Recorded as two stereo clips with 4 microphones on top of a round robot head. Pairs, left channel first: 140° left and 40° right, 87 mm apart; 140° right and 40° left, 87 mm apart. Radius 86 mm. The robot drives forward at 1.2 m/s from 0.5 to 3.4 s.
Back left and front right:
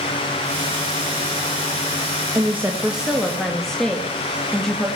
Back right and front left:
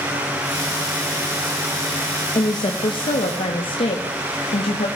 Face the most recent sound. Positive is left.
turn(degrees=-135)